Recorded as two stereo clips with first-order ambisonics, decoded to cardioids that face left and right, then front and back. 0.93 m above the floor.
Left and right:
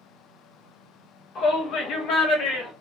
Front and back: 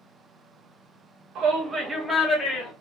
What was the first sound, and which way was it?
A shout, 140° left.